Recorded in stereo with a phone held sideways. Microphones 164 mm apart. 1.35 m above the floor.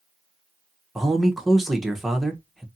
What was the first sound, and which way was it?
A man speaking, centre (ahead or behind).